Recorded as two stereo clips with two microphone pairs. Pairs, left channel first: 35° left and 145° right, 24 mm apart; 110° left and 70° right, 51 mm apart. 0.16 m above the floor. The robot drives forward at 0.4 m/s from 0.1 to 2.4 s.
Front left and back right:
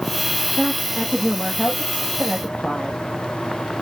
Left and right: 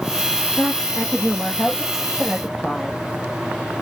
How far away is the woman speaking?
About 5.5 m.